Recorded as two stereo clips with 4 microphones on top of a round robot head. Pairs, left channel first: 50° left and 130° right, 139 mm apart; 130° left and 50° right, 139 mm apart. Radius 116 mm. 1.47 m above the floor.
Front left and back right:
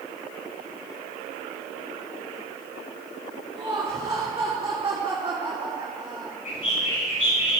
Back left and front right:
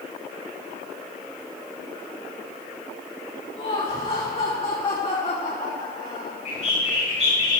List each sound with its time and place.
3.6 s laughter: 170° left, 4 m
6.5 s a bird: 85° left, 7.5 m